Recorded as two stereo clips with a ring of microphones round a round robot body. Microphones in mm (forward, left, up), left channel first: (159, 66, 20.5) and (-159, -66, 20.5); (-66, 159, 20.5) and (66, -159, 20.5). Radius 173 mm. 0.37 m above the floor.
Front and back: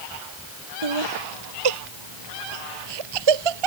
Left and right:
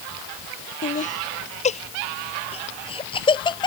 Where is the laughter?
Straight behind; by 3.7 s 170° right.